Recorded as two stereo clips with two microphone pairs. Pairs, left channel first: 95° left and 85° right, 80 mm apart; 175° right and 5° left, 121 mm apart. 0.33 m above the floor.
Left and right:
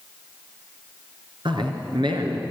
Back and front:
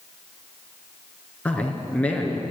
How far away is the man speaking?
About 4 m.